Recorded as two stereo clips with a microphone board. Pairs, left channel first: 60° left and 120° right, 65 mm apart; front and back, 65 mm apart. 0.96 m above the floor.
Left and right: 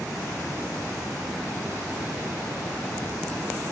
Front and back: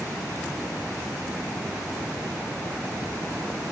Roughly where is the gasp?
I don't hear a gasp.